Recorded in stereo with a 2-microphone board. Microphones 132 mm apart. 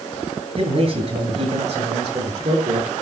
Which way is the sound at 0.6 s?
45° right (ahead or behind).